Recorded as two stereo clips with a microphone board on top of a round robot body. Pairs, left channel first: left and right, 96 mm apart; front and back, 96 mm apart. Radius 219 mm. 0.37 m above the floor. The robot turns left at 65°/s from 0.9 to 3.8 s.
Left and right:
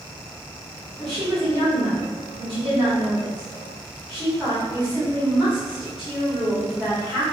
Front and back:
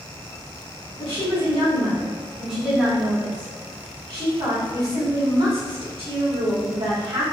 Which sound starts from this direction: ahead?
A woman speaking, at 1.0 s.